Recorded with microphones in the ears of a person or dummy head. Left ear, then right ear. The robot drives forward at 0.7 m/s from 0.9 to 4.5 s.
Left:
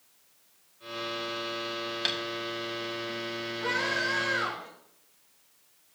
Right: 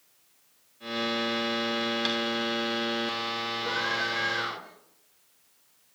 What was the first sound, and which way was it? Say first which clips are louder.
Tapping: left 2 dB; 10° left (ahead or behind).